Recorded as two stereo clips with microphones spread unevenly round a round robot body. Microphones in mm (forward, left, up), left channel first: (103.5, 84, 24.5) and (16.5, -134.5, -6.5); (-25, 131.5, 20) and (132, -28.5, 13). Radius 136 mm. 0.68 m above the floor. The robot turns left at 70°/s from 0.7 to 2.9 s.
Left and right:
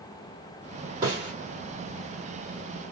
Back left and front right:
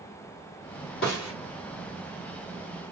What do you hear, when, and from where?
1.0 s a snare drum: straight behind, 1.7 m; by 1.3 s 160° left, 1.7 m